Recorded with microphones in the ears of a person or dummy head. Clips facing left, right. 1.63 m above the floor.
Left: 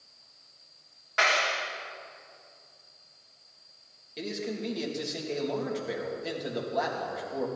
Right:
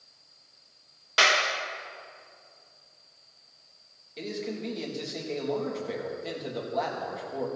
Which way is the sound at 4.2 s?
5° left (ahead or behind).